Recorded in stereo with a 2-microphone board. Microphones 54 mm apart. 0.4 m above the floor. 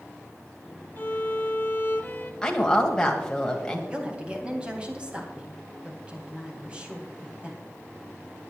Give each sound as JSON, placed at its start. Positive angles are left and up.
{"t": 1.0, "sound": "a violin", "side_deg": 40, "distance_m": 1.1}
{"t": 2.4, "sound": "a woman speaking", "side_deg": 15, "distance_m": 2.0}
{"t": 3.9, "sound": "a woman speaking", "side_deg": -20, "distance_m": 2.5}